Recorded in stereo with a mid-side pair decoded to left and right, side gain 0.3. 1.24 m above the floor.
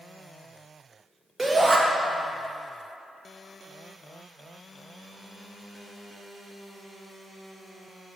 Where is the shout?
30° right, 1.6 m.